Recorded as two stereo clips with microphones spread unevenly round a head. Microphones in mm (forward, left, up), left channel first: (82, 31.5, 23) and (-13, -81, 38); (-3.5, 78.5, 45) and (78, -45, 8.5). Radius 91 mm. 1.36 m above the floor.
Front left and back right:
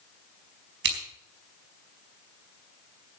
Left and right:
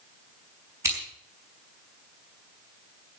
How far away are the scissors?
About 4.5 m.